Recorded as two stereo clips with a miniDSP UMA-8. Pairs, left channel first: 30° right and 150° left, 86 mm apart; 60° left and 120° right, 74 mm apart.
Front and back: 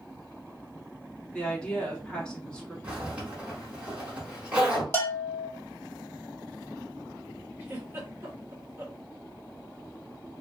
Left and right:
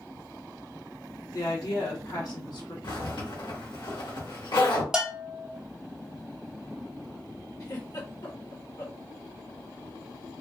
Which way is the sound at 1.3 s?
45° left.